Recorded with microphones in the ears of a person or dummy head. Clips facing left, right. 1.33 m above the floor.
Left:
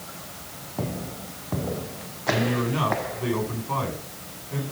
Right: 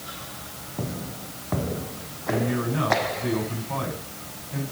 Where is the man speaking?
90° left, 5.5 m.